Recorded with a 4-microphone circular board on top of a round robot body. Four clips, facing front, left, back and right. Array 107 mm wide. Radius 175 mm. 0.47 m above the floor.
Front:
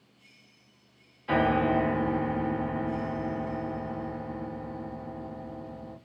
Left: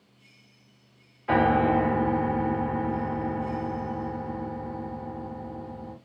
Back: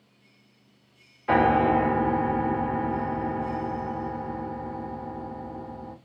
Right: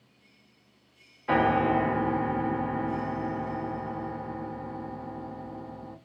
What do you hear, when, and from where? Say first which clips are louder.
1.3 s a piano: left 2 dB, back 4 dB; 170° right, 1.4 m